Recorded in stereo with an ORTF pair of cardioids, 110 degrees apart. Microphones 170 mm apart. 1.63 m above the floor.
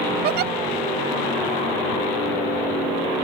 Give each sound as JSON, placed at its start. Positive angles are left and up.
{"t": 0.2, "sound": "a giggle", "azimuth_deg": -65}